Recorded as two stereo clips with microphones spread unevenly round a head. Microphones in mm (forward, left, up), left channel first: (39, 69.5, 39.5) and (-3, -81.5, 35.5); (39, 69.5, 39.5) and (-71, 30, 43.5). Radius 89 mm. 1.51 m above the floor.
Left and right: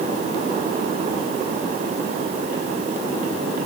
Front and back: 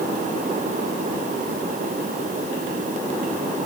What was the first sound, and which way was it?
Only background noise.